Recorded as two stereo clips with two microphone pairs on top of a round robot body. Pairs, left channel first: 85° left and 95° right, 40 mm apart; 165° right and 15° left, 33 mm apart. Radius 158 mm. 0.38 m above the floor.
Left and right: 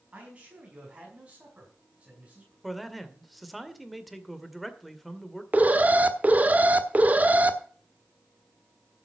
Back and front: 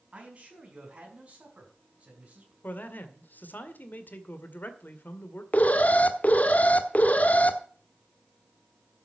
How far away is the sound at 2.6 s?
About 2 m.